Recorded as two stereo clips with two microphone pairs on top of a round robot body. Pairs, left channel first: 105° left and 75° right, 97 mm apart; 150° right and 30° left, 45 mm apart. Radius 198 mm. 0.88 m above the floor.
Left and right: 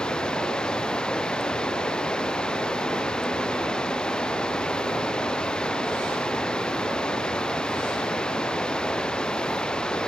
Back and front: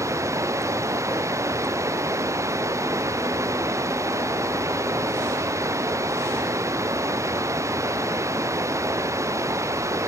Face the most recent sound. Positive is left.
turn(degrees=25)